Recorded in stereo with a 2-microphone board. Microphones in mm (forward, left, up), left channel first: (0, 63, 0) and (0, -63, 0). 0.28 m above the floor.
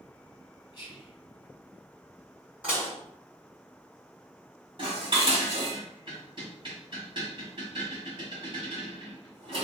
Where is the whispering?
35° left (ahead or behind), 1.7 m.